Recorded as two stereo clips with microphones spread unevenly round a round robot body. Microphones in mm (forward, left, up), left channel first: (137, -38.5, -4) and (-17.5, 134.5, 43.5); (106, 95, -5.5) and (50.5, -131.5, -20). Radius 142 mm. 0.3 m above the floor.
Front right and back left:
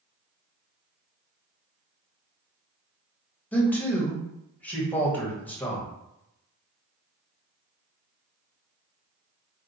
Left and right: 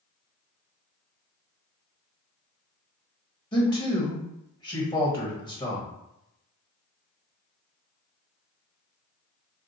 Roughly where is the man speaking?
Ahead.